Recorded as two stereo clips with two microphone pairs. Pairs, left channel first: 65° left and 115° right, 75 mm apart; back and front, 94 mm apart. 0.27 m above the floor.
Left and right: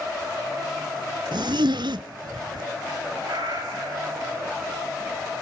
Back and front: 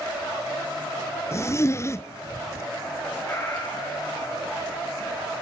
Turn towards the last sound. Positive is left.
turn(degrees=-115)